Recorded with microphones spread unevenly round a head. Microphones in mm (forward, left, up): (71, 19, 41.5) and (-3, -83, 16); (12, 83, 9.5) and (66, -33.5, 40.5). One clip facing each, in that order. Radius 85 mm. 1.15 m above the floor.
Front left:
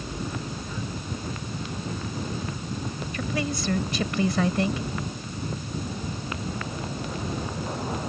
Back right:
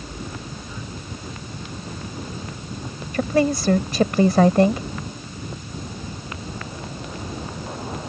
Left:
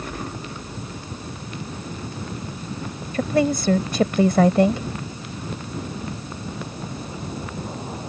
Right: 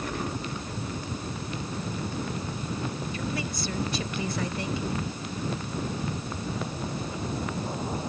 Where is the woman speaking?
170° left.